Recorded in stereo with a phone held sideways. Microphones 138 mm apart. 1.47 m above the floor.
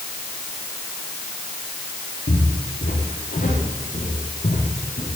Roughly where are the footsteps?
Left.